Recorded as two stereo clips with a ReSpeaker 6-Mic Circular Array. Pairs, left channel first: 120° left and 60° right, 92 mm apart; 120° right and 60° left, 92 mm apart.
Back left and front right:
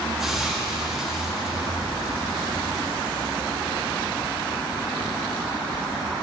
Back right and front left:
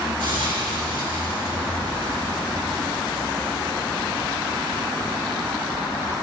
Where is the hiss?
25° left, 3.5 m.